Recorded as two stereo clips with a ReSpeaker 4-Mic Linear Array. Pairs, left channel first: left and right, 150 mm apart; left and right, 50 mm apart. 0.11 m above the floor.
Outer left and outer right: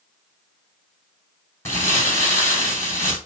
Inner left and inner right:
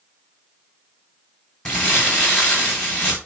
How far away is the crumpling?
About 3 m.